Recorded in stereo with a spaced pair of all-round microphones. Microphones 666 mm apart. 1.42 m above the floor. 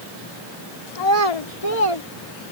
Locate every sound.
0.9 s a child speaking: 65° left (ahead or behind); by 2.0 s 50° left (ahead or behind)